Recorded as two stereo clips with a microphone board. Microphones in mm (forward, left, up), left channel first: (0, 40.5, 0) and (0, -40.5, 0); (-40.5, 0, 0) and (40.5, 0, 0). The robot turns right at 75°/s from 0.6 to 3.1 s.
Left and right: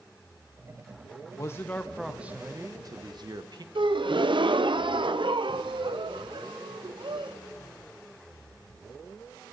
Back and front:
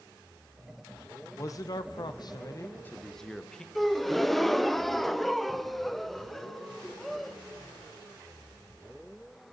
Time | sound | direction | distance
1.4 | a man speaking | 130° left | 0.8 m
3.8 | a gasp | 90° right | 0.5 m